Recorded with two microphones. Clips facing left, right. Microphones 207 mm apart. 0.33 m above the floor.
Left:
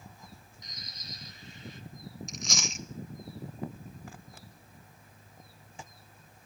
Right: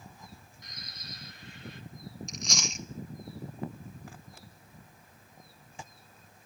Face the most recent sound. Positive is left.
turn(degrees=0)  # may be behind; listen again after turning